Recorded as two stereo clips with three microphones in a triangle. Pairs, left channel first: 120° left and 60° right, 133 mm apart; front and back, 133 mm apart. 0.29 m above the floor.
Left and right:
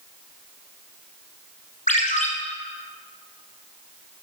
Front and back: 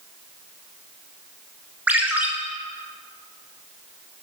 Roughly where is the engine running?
I don't hear an engine running.